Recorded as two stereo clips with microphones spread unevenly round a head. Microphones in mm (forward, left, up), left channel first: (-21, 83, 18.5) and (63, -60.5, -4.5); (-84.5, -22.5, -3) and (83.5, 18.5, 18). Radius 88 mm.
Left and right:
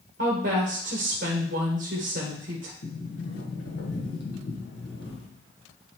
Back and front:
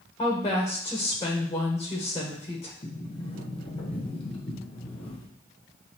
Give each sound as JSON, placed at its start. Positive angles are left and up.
{"t": 0.2, "sound": "a woman speaking", "azimuth_deg": -95, "distance_m": 1.3}
{"t": 2.8, "sound": "a sliding door", "azimuth_deg": 130, "distance_m": 1.4}